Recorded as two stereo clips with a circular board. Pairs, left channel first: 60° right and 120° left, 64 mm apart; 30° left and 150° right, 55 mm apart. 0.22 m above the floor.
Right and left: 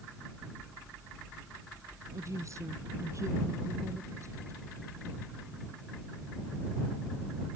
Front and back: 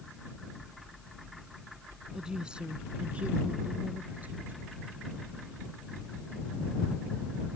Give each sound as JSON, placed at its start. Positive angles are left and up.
{"t": 2.1, "sound": "a woman speaking", "azimuth_deg": 135}